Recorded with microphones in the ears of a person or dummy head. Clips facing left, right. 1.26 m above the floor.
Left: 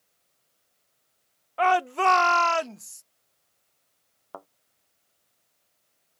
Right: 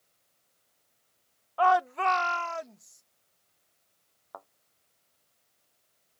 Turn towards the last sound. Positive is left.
turn(degrees=40)  # may be behind; listen again after turning